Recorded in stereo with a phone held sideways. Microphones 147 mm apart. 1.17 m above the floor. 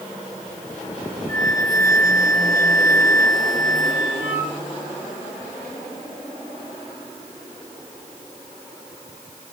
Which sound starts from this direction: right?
A flute, at 1.3 s.